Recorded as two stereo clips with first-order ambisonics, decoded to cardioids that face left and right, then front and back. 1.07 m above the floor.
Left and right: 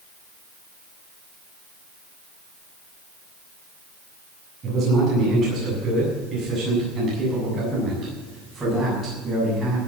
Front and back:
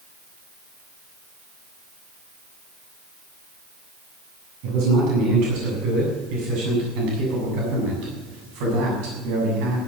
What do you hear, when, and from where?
4.6 s a man speaking: 150° right, 8 m; by 9.8 s 170° right, 6.5 m